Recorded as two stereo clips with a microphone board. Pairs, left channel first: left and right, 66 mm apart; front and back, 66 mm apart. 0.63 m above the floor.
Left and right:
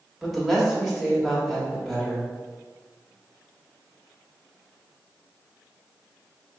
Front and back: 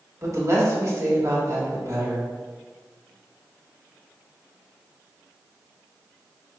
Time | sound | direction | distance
0.2 | a woman speaking | 175° right | 1.3 m